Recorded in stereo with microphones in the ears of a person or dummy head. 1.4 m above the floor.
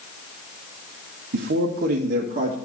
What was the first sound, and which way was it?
A man speaking, 60° right (ahead or behind).